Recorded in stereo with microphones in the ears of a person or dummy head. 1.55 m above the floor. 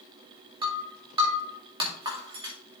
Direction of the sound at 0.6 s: 25° right (ahead or behind).